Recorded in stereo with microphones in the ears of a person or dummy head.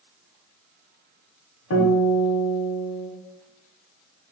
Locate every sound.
1.7 s a guitar: 85° left, 1.7 m